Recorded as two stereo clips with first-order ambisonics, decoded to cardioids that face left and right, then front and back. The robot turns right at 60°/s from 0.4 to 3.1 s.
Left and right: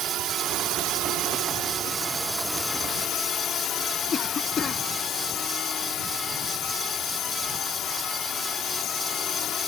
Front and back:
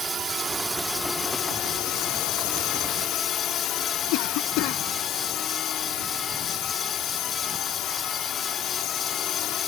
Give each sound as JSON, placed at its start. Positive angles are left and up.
{"t": 0.0, "sound": "a drone", "azimuth_deg": -120}
{"t": 4.1, "sound": "a cough", "azimuth_deg": 20}